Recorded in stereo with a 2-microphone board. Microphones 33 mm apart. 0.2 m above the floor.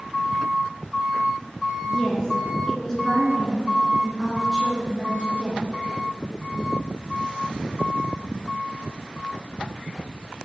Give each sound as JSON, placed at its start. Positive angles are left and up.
{"t": 1.9, "sound": "a woman speaking", "side_deg": 30, "distance_m": 2.5}